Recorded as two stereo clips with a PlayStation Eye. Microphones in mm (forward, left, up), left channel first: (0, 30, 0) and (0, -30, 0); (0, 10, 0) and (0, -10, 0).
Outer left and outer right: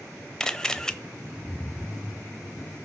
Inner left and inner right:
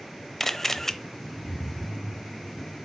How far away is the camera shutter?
About 0.7 m.